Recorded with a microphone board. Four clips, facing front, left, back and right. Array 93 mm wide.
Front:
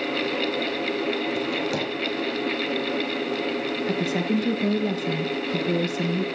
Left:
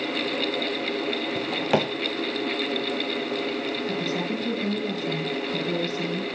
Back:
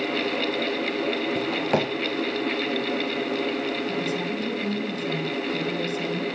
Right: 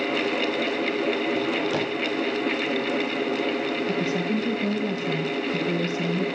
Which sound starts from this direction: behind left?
A drawer, at 1.4 s.